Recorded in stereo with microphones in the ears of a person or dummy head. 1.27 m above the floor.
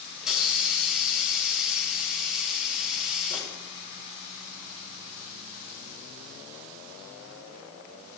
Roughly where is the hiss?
Centre.